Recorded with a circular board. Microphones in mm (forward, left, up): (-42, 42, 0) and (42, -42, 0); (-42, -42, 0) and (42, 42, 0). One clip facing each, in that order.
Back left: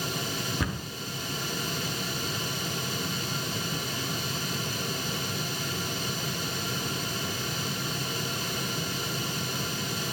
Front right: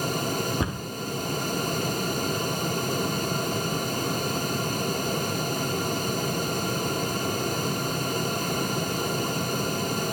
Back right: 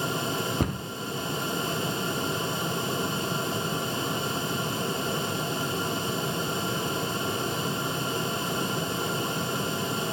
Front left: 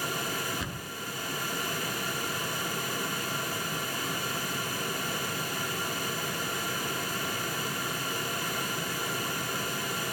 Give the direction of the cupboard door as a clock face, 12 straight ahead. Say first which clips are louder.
Front right 3 dB, back right 9 dB; 4 o'clock.